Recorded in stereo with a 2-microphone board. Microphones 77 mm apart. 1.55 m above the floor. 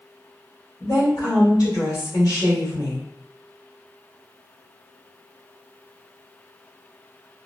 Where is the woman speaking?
60° left (ahead or behind), 1.8 m.